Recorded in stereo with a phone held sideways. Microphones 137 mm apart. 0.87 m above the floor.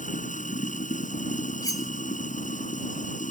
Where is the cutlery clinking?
25° left (ahead or behind).